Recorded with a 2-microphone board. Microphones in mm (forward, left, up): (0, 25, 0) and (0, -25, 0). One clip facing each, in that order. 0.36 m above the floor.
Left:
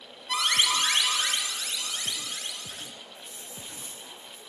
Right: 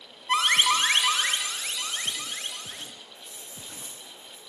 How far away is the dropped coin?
About 7.5 m.